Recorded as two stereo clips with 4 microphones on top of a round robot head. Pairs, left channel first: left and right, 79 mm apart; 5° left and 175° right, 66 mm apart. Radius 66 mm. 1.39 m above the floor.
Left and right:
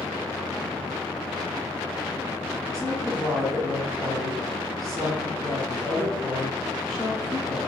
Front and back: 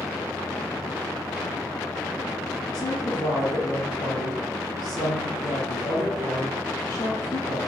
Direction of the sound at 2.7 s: 10° left.